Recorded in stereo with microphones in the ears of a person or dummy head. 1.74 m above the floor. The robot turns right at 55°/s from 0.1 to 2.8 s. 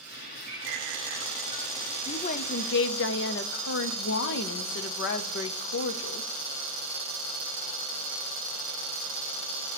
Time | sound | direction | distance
0.5 | a bird | 55° right (ahead or behind) | 4.5 m
2.1 | a woman speaking | 25° left | 0.6 m